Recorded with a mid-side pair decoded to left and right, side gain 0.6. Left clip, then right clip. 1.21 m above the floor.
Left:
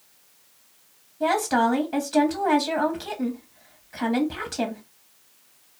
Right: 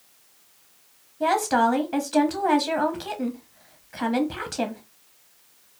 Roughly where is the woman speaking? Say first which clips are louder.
Right 1 dB; ahead.